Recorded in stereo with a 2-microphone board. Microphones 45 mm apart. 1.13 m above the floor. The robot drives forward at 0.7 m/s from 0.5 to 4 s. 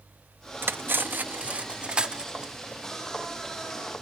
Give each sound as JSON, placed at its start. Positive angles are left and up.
{"t": 0.6, "sound": "cutlery clinking", "side_deg": -50}